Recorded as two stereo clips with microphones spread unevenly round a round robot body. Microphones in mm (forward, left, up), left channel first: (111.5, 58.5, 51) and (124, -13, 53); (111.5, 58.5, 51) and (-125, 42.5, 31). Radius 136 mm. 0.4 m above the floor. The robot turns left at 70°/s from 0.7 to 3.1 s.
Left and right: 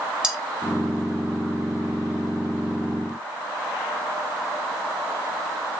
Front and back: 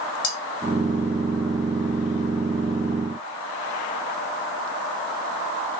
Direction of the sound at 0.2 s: Straight ahead.